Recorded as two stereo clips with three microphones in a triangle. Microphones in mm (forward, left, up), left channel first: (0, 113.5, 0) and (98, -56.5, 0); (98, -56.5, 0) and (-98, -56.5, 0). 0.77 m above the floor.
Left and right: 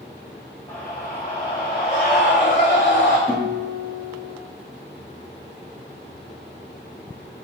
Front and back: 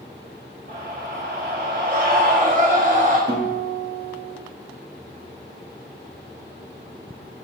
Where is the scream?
160° right, 3 m; by 3.2 s 125° left, 3 m.